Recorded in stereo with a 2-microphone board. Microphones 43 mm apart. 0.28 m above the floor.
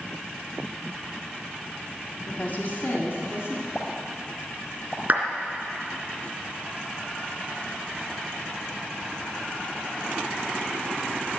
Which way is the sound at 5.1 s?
40° right (ahead or behind).